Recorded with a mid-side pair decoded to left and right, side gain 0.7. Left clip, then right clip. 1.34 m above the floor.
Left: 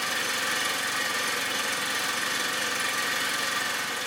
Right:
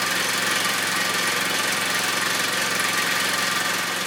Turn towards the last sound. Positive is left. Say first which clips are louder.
# right 5 dB
turn(degrees=-45)